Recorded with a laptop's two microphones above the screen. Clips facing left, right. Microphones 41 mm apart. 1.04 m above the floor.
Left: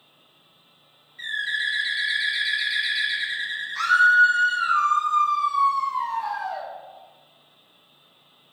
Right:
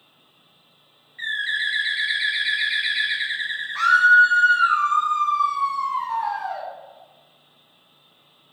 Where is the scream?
35° right (ahead or behind), 0.8 m.